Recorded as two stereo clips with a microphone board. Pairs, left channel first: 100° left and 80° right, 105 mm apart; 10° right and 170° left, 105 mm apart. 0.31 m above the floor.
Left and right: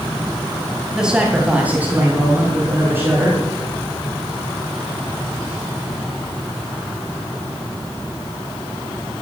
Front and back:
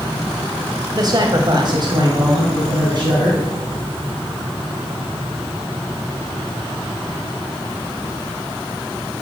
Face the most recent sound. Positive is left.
turn(degrees=-145)